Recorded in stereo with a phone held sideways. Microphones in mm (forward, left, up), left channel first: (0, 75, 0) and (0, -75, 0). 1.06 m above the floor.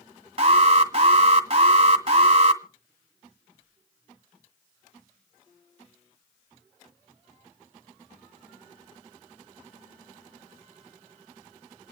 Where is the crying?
I don't hear crying.